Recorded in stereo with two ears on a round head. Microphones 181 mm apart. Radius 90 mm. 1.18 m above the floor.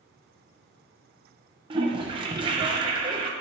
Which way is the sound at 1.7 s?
25° right (ahead or behind).